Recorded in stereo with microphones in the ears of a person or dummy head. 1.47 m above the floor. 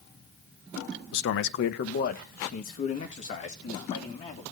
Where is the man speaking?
70° left (ahead or behind), 0.8 m; by 4.4 s 40° left (ahead or behind), 3 m.